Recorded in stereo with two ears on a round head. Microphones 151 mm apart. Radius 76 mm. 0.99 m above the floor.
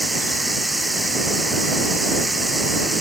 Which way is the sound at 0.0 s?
Centre (ahead or behind).